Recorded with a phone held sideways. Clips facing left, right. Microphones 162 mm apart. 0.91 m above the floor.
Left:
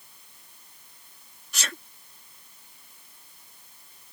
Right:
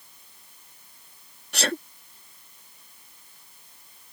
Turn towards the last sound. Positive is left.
turn(degrees=-65)  # may be behind; listen again after turning